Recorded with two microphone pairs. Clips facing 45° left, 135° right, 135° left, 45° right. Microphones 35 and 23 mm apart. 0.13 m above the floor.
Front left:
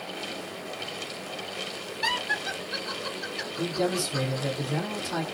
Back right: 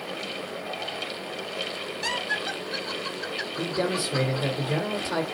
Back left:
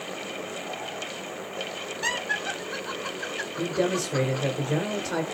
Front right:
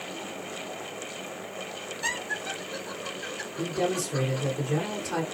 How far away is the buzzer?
I don't hear a buzzer.